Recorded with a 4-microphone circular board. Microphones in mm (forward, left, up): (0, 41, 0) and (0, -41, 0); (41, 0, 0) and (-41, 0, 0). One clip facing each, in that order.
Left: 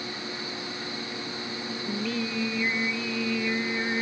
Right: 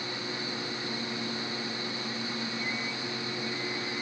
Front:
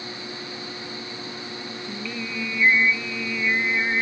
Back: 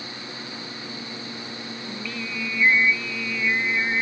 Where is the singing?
80° left.